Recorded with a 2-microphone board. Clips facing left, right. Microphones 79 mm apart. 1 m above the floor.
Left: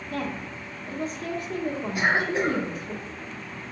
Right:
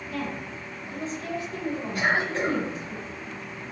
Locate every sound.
0.1 s a woman speaking: 50° left (ahead or behind), 1.2 m
1.9 s a cough: 15° left (ahead or behind), 1.6 m